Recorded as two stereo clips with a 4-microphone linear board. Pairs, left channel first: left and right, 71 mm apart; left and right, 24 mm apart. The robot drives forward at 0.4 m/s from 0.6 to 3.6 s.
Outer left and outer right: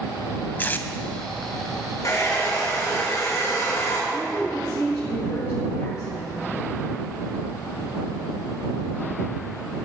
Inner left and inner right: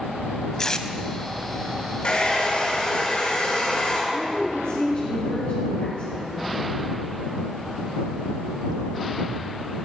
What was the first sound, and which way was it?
Tape being pulled, 25° left (ahead or behind).